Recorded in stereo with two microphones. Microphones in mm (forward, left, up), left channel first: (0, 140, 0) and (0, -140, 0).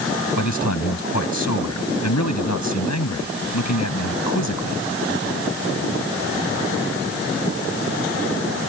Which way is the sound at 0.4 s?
80° left.